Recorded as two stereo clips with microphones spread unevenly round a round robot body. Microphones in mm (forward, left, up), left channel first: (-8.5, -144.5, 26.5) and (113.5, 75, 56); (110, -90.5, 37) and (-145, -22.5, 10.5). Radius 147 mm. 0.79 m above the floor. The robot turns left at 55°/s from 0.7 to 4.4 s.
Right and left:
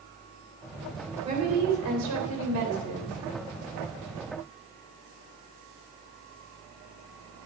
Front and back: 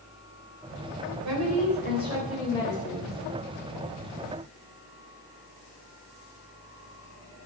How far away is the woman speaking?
About 3.5 m.